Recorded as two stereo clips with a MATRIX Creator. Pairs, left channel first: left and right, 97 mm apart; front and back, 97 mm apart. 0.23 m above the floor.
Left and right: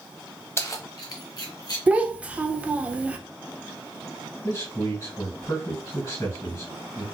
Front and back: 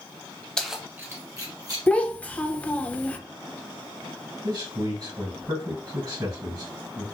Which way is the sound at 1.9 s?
45° right.